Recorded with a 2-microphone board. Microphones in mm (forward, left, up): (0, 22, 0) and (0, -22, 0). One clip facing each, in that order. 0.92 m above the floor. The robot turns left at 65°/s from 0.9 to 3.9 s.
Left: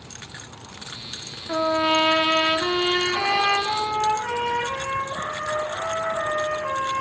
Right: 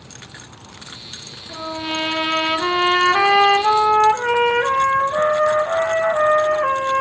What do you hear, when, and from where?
1.5 s a trumpet: 50° left, 1.2 m; by 7.0 s 105° right, 1.2 m